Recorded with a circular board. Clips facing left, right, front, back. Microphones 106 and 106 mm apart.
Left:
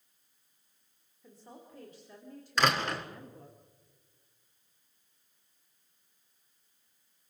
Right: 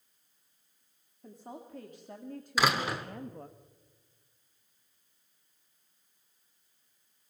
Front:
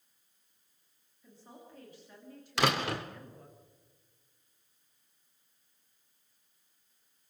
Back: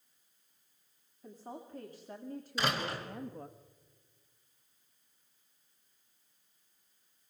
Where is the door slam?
5° right, 2.0 m.